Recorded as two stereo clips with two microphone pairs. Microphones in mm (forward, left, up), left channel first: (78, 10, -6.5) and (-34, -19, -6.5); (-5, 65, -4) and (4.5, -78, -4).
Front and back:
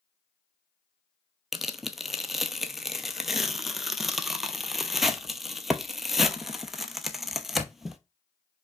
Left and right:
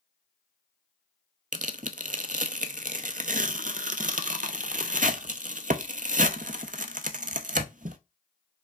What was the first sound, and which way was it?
Tearing paper, 75° right.